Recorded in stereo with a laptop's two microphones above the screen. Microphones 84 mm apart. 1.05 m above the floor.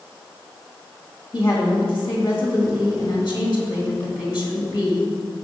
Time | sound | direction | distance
1.3 | a woman speaking | 60° left (ahead or behind) | 1.7 m